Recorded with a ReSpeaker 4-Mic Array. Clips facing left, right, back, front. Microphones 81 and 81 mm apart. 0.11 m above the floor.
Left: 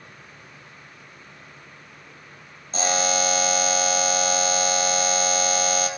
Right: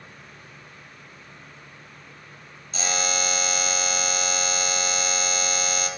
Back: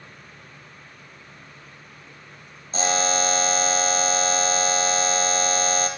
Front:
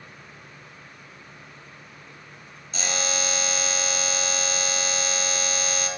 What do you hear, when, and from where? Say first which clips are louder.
2.7 s a buzzer: left 5 dB, back 7 dB; 130° left, 0.8 m